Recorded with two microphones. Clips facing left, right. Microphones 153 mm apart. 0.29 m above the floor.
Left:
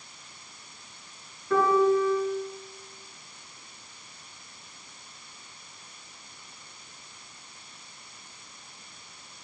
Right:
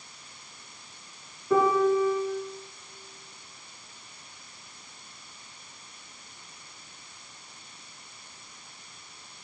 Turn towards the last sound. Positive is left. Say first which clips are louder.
# even
turn(degrees=-20)  # may be behind; listen again after turning